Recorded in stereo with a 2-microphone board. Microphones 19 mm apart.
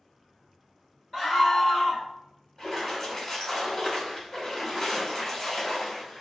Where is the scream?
35° left (ahead or behind), 1.1 m.